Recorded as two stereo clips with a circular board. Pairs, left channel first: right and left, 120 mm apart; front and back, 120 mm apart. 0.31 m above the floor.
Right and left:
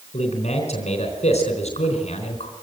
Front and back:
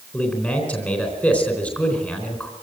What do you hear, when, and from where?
0.1 s a man speaking: 80° right, 3.5 m